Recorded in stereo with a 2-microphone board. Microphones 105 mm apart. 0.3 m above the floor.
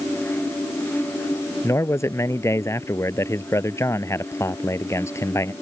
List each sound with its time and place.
1.6 s a man speaking: 25° left (ahead or behind)